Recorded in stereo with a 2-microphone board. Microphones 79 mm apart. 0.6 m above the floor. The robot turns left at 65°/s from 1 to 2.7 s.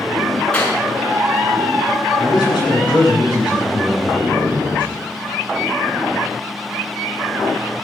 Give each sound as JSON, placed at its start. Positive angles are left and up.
{"t": 0.5, "sound": "a clap", "side_deg": 15, "distance_m": 6.5}
{"t": 2.2, "sound": "a man speaking", "azimuth_deg": 130, "distance_m": 8.5}